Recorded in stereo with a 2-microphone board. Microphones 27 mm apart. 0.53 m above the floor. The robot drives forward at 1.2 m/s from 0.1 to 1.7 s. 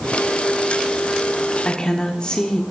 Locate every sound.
1.6 s a woman speaking: 35° left (ahead or behind), 1.2 m